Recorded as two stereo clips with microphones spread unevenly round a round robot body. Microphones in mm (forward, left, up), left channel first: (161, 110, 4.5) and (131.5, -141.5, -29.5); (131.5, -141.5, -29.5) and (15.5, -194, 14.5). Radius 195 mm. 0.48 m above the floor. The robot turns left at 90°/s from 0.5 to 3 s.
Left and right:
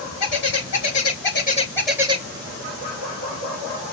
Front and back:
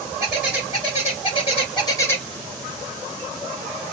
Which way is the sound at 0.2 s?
115° left.